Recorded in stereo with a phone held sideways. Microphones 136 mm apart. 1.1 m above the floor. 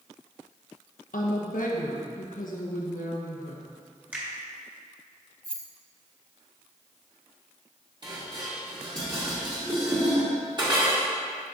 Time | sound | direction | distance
1.1 | a woman speaking | 80° left | 1.1 m
4.1 | a finger snap | 15° right (ahead or behind) | 1.8 m
5.4 | keys jangling | 40° right (ahead or behind) | 1.2 m
8.0 | dishes clattering | 35° right (ahead or behind) | 1.9 m